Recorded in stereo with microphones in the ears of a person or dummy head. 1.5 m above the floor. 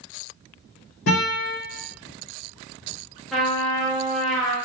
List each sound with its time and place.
1.1 s a guitar: 60° left (ahead or behind), 1.0 m
3.3 s a trumpet: centre (ahead or behind), 0.6 m